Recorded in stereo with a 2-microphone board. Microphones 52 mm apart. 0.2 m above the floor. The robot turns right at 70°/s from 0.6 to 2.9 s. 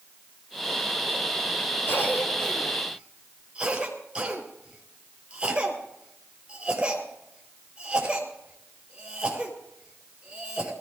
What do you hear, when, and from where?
1.9 s a cough: 50° left (ahead or behind), 5 m; by 10.7 s 20° right (ahead or behind), 5 m